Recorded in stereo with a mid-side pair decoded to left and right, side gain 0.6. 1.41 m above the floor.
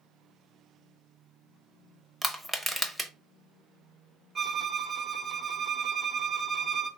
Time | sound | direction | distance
2.2 | crushing | 5° right | 0.7 m
4.3 | a violin | 30° right | 0.8 m